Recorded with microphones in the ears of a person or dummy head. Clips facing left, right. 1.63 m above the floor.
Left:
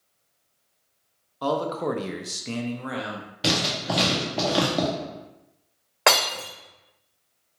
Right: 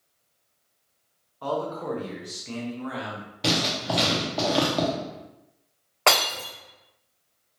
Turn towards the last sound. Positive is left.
turn(degrees=20)  # may be behind; listen again after turning